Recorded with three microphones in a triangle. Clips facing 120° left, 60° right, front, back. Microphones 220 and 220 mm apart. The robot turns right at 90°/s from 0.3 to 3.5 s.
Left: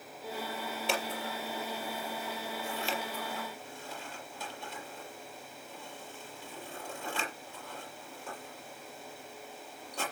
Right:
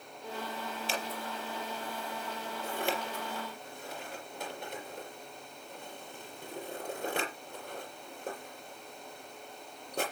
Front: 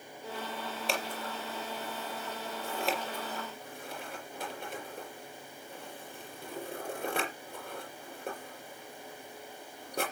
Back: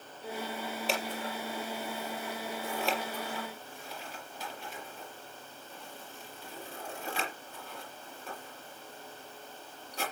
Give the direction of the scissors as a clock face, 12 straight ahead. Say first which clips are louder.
Left 5 dB, back 1 dB; 9 o'clock.